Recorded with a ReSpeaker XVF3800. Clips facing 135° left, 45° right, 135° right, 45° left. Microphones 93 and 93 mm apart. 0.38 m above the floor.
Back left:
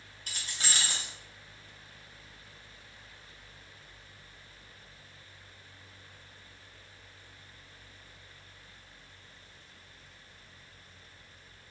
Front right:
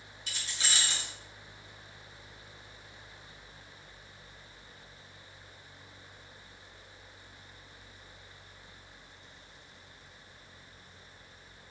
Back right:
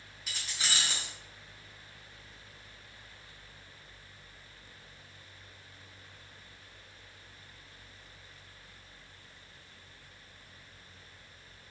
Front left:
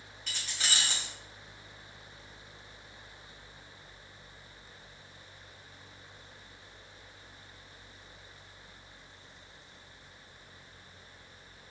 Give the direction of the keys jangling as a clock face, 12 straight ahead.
7 o'clock.